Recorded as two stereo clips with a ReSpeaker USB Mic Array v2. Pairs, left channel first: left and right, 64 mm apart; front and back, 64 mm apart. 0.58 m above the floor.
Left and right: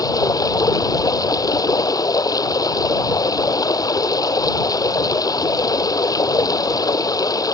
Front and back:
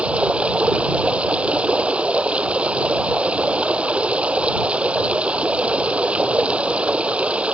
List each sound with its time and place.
0.0 s running water: 110° left